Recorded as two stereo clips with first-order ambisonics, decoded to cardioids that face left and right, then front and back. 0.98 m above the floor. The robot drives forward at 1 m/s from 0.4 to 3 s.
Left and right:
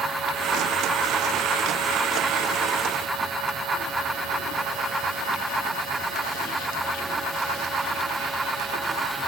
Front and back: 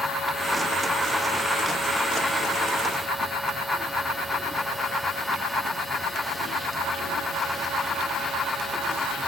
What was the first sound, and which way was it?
Only background noise.